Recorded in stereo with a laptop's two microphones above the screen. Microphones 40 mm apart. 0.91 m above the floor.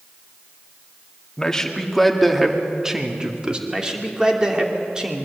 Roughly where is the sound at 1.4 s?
Centre.